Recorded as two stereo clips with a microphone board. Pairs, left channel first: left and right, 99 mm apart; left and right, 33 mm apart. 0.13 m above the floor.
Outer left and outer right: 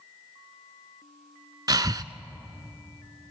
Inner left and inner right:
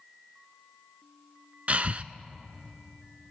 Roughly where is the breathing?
Right.